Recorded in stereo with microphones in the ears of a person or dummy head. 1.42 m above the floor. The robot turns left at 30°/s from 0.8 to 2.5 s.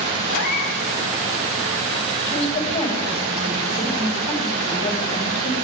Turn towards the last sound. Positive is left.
turn(degrees=35)  # may be behind; listen again after turning